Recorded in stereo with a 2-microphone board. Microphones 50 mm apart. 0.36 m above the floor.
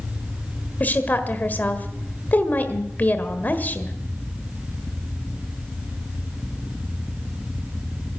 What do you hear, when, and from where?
0.8 s a woman speaking: 35° left (ahead or behind), 1.5 m